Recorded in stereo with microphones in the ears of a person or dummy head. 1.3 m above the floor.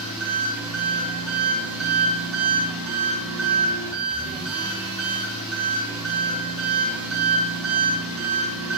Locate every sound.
0.0 s an engine running: 80° right, 1.1 m